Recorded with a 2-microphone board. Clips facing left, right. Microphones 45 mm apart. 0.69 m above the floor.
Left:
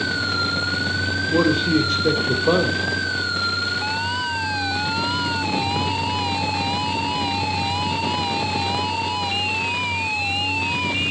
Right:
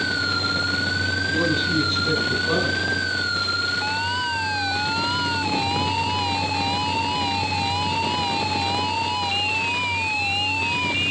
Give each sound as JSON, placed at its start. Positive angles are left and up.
{"t": 1.3, "sound": "a man speaking", "side_deg": 70, "distance_m": 3.0}